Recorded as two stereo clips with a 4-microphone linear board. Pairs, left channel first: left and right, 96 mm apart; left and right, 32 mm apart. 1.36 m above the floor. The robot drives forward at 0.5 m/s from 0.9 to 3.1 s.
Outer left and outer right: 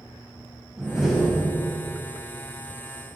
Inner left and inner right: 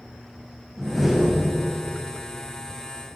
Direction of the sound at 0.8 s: 5° right (ahead or behind).